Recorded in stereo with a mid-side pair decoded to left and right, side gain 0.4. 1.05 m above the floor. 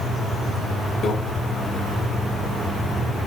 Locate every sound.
1.0 s a microwave: 60° left, 0.9 m